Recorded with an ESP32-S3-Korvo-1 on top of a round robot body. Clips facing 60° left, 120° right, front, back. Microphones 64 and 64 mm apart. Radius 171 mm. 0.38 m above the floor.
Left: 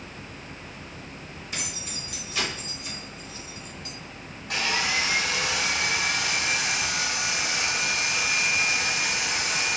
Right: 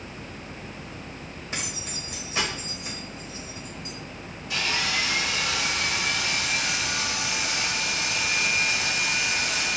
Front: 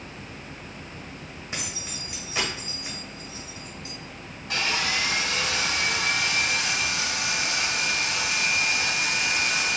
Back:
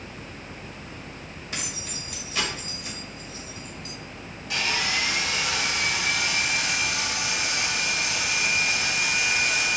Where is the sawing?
45° left, 2.5 m.